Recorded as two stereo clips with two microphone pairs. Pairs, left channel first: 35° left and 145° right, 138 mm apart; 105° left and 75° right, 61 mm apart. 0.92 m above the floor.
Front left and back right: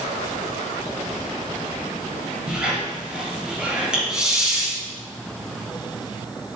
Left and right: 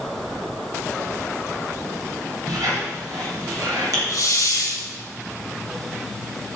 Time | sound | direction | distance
2.5 | a squeak | 60° right | 3 m
4.1 | a hiss | 130° left | 1.7 m